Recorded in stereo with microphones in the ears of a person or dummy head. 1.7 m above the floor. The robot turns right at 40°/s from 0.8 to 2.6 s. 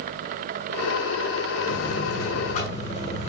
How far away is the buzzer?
About 5 m.